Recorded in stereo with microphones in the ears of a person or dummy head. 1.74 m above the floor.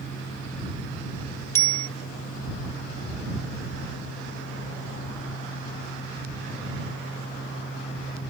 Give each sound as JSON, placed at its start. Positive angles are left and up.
{"t": 1.6, "sound": "a bicycle bell", "side_deg": 15}